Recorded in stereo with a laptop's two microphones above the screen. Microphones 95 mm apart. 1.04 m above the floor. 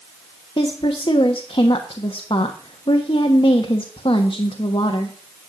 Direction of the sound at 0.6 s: 60° left (ahead or behind).